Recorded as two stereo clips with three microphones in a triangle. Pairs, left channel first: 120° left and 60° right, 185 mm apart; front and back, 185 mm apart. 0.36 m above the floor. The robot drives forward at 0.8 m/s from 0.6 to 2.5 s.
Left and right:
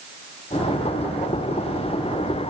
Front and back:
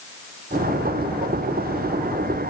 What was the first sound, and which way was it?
Only background noise.